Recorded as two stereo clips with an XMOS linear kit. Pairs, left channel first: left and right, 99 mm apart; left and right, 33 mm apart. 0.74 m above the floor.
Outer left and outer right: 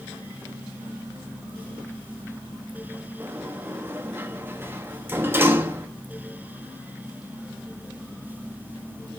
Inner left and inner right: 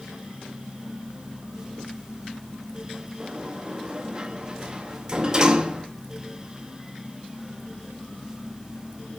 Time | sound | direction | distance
3.2 | a sliding door | 25° right (ahead or behind) | 1.0 m